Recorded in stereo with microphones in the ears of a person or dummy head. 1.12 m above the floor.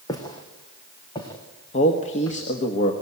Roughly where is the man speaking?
Left.